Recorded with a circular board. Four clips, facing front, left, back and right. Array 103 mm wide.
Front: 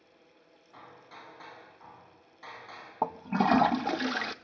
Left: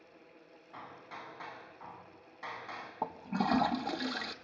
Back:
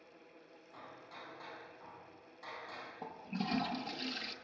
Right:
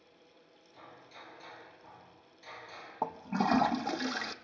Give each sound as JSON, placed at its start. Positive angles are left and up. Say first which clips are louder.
{"t": 0.7, "sound": "hammering", "louder": "left 5 dB, front 2 dB", "azimuth_deg": 80, "distance_m": 4.0}
{"t": 3.0, "sound": "a toilet flushing", "louder": "right 2 dB, front 14 dB", "azimuth_deg": -10, "distance_m": 0.6}